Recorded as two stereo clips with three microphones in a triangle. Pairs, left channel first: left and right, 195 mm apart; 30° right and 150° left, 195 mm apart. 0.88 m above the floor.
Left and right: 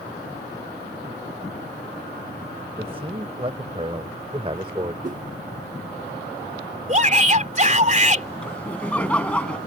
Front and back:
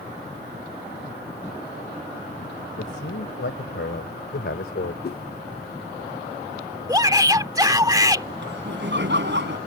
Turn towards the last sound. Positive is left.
turn(degrees=175)